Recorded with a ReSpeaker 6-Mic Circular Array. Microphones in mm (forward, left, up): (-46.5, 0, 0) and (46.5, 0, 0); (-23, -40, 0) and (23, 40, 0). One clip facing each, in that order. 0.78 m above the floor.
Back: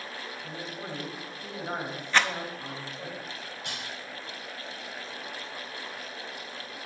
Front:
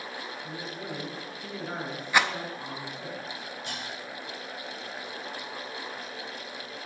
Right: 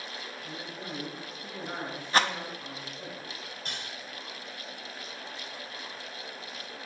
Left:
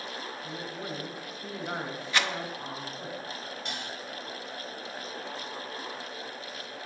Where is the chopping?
No chopping in this recording.